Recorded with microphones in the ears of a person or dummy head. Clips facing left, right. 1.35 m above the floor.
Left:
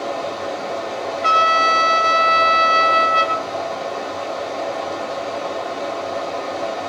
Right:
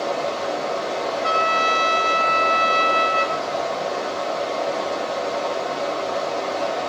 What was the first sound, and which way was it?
Running water, 10° right (ahead or behind).